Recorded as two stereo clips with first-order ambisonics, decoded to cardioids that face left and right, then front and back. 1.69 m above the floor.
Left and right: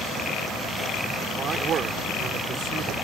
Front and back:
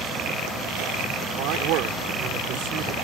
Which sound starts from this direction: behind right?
A man speaking, at 1.4 s.